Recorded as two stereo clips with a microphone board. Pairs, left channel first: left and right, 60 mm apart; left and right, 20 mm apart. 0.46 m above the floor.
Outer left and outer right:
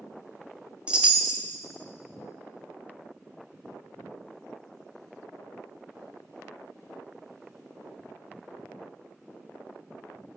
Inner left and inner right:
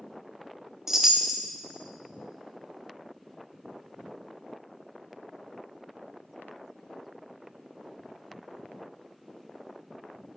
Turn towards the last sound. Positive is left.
turn(degrees=-20)  # may be behind; listen again after turning